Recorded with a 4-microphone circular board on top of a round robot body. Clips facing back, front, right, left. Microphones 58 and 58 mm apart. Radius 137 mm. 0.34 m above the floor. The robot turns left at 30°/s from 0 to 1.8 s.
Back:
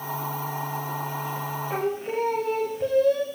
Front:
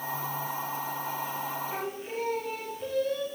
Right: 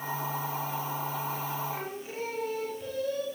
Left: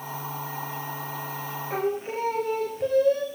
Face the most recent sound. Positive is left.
turn(degrees=140)